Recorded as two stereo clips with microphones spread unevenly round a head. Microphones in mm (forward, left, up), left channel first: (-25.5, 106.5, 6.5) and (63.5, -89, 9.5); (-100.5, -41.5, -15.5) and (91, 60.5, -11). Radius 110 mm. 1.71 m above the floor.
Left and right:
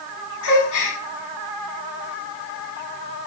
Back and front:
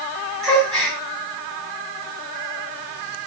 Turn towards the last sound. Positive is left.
turn(degrees=120)